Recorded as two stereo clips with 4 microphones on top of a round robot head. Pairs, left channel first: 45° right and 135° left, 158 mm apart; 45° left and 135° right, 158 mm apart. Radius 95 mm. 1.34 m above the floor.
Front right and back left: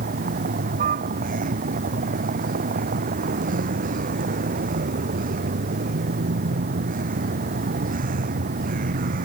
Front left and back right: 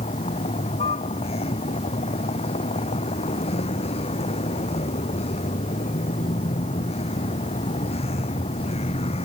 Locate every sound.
0.0 s a vehicle: 100° left